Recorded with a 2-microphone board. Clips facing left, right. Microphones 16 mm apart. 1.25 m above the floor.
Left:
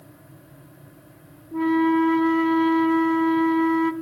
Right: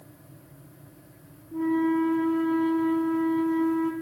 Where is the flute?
65° left (ahead or behind), 0.8 m.